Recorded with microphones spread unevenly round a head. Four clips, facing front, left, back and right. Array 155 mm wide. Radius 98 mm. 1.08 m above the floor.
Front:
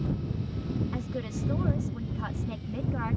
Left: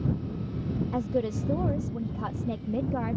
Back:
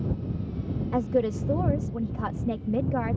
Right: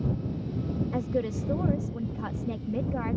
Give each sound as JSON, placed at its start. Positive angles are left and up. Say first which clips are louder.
{"t": 0.9, "sound": "a woman speaking", "louder": "left 2 dB, back 10 dB", "azimuth_deg": -160}